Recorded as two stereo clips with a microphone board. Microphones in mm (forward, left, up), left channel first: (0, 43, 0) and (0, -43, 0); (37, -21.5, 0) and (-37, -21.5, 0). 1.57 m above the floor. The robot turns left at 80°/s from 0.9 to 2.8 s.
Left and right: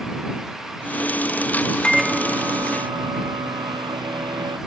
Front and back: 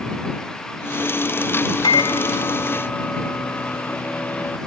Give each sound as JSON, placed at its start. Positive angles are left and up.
{"t": 1.8, "sound": "a microwave", "azimuth_deg": 10}